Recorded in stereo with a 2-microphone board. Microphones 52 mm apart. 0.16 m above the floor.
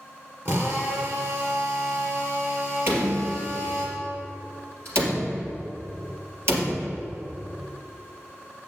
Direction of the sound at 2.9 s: 50° right (ahead or behind).